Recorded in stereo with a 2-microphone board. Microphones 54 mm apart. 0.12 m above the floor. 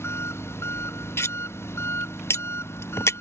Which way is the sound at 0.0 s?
50° left (ahead or behind).